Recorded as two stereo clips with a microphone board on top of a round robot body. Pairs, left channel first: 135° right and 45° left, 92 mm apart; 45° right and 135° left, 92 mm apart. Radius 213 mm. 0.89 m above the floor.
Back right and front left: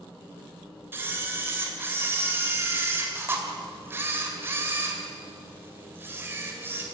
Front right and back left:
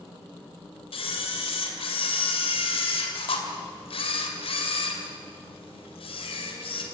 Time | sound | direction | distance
0.9 | a camera shutter | 20° right | 2.5 m